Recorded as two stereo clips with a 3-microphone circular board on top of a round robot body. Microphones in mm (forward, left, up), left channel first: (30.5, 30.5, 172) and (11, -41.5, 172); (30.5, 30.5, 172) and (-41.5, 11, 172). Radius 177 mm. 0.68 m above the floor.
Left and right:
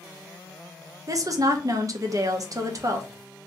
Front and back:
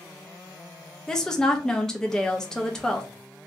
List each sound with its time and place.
1.1 s a woman speaking: 65° right, 0.9 m